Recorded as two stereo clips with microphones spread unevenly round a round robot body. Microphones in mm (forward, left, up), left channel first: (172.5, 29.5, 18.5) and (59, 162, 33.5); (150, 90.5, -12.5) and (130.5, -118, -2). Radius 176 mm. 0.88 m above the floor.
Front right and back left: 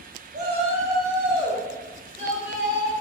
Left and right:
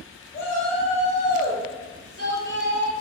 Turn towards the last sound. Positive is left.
turn(degrees=-125)